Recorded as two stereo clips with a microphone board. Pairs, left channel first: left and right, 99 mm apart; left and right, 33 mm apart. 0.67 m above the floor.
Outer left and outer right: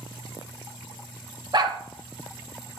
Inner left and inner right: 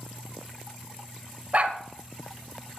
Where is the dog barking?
50° right (ahead or behind), 1.3 m.